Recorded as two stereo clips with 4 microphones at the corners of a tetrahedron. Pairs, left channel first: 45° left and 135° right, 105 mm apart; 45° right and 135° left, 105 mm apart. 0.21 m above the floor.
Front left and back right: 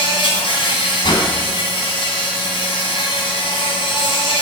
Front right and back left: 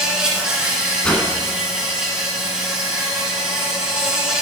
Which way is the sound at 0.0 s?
55° left.